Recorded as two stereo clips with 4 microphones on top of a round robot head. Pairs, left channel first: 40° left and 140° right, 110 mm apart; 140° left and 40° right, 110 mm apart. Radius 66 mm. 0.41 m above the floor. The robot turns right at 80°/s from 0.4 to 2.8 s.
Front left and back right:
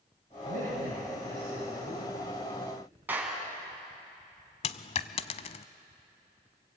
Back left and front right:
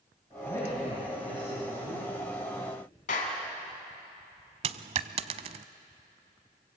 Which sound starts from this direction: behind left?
A clap, at 3.1 s.